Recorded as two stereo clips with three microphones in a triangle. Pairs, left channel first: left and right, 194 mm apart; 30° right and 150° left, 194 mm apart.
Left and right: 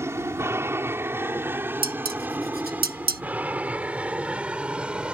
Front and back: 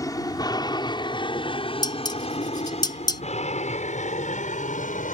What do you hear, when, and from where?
0.0 s an aircraft: 45° right; by 5.2 s 5° right
1.8 s dishes clattering: 95° right